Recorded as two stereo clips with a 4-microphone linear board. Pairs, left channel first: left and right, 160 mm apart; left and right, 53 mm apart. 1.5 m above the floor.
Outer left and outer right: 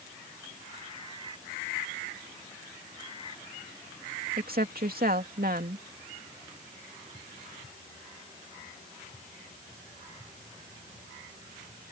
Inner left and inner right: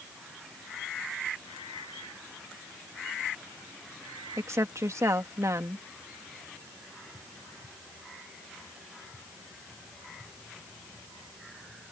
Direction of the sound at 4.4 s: 65° right (ahead or behind).